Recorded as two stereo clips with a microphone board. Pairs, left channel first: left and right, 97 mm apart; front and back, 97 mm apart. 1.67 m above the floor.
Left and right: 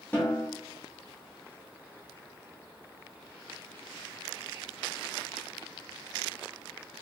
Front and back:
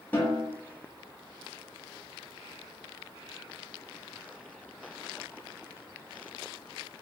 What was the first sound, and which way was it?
A snare drum, 45° left.